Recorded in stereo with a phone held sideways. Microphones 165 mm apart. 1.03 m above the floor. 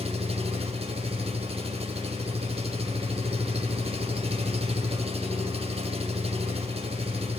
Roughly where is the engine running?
Right.